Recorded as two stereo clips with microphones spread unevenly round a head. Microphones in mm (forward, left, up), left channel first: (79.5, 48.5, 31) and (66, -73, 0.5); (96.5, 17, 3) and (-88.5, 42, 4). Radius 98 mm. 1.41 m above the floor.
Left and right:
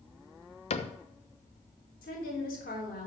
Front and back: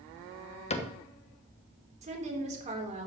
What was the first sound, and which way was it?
A cupboard door, 50° left.